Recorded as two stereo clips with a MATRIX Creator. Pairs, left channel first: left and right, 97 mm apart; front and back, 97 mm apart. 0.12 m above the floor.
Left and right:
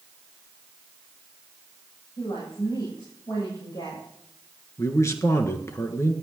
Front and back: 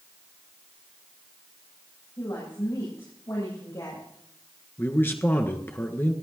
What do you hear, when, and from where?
2.2 s a woman speaking: 50° left, 8 m
4.8 s a man speaking: 55° left, 1.5 m